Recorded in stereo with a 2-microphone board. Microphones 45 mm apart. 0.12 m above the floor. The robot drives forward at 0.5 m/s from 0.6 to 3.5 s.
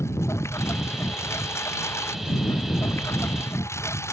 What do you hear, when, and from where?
0.0 s a lawn mower: 85° left